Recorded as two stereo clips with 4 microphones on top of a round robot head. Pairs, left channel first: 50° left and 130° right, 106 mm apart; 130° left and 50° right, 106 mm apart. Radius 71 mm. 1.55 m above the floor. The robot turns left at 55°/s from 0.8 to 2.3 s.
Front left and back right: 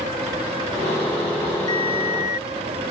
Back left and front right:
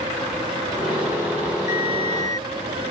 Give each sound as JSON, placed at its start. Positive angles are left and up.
{"t": 1.7, "sound": "a ringtone", "azimuth_deg": 105}